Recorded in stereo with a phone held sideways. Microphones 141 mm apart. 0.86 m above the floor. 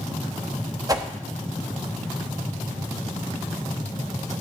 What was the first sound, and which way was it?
A whoosh, 25° right (ahead or behind).